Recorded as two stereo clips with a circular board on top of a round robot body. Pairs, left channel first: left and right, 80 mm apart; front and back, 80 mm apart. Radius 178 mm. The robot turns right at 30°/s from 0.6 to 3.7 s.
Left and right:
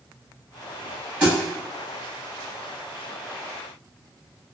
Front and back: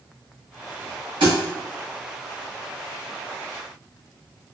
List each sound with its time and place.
1.2 s a thud: 160° right, 1.1 m; by 1.4 s 155° right, 1.1 m